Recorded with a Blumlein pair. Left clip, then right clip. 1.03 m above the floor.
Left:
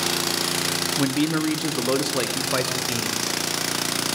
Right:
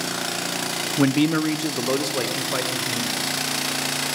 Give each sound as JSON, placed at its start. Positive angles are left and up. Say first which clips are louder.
{"t": 1.0, "sound": "a man speaking", "louder": "right 7 dB", "azimuth_deg": -15, "distance_m": 1.2}